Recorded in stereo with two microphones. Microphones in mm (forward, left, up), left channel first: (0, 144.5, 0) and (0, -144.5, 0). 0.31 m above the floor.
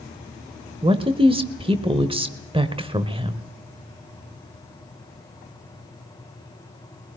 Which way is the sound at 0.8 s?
20° right (ahead or behind).